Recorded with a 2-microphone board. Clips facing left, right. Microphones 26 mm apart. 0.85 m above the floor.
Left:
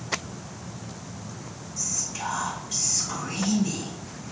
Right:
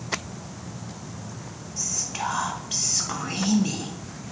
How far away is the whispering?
About 0.6 m.